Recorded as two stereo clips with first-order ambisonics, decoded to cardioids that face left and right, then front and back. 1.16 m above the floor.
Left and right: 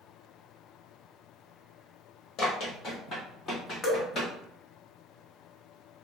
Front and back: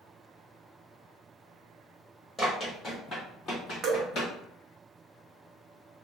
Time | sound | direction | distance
2.4 | running footsteps | 70° left | 1.6 m
3.8 | dripping | 140° left | 0.7 m